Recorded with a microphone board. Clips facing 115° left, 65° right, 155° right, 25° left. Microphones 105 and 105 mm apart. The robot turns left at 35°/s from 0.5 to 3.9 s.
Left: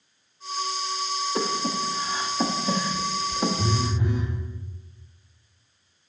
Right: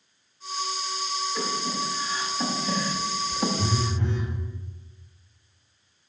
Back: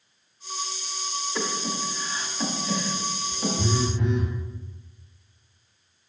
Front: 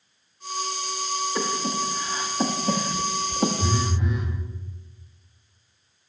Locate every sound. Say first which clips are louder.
1.4 s breathing: left 5 dB, front 2 dB; 100° left, 0.9 m; by 3.5 s 25° left, 0.9 m
3.6 s a phone buzzing: left 1 dB, even; 155° right, 2 m; by 4.4 s 170° right, 2 m